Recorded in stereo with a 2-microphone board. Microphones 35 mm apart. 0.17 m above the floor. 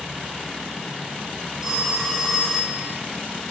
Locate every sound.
1.6 s a phone ringing: 15° right (ahead or behind), 5 m